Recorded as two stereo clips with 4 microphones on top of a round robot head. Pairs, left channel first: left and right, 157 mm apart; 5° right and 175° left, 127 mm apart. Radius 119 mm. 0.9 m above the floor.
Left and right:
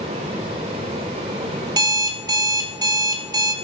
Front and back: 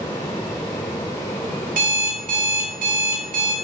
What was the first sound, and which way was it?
An alarm clock, 155° right.